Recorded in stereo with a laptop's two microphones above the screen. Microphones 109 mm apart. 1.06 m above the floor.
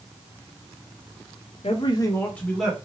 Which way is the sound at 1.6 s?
60° left (ahead or behind).